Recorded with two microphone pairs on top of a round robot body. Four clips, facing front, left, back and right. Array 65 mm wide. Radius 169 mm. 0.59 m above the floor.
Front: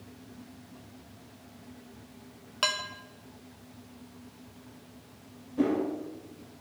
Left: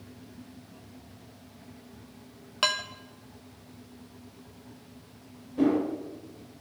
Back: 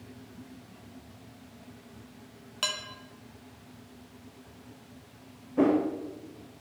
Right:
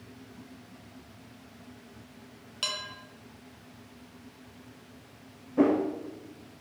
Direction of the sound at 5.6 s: 130° right.